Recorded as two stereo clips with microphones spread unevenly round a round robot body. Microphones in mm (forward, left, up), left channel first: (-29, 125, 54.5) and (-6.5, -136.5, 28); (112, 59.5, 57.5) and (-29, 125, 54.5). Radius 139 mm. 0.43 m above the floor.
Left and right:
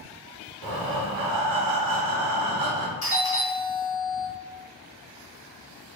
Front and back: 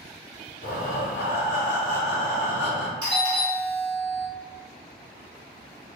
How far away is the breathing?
About 0.8 m.